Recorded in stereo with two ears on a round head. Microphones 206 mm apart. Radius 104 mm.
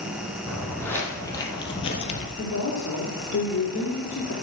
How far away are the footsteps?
About 2.5 m.